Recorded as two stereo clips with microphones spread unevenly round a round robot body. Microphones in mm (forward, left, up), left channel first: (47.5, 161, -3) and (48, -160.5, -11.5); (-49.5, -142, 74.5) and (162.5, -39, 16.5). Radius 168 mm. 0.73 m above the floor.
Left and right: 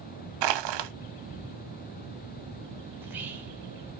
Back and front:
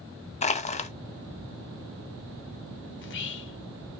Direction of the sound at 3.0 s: 170° right.